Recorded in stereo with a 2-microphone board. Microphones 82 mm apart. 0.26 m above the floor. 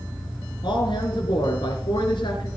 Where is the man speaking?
70° left (ahead or behind), 3 m.